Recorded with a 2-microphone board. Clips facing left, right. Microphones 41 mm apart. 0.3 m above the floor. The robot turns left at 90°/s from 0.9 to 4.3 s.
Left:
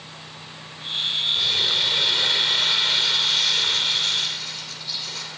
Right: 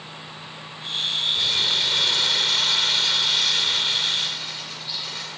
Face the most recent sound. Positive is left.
turn(degrees=-25)  # may be behind; listen again after turning